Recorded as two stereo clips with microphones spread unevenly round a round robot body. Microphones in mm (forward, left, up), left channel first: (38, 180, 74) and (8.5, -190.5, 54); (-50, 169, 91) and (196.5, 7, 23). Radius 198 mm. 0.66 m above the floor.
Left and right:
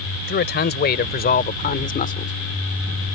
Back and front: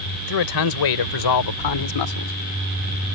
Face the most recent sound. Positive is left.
turn(degrees=155)